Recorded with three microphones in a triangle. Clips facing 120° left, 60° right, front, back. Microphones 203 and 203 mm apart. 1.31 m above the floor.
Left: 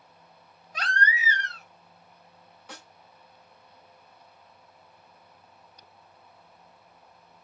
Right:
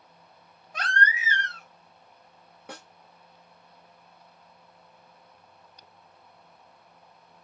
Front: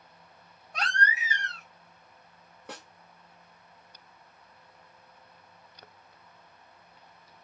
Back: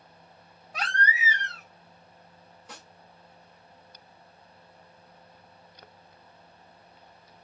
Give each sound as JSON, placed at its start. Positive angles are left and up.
{"t": 0.7, "sound": "a baby crying", "azimuth_deg": -90, "distance_m": 1.5}
{"t": 2.7, "sound": "a snare drum", "azimuth_deg": -25, "distance_m": 2.0}